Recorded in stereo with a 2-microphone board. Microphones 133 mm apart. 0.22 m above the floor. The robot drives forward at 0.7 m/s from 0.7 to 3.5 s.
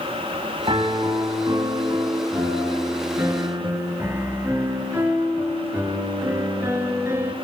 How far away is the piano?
About 1.4 m.